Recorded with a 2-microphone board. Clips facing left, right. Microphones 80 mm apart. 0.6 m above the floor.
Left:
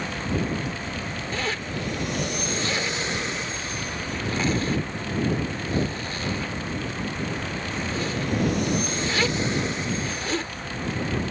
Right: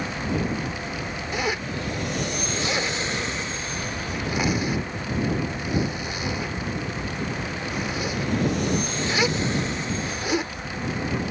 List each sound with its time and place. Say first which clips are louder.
1.3 s a zipper: right 3 dB; 15° right (ahead or behind)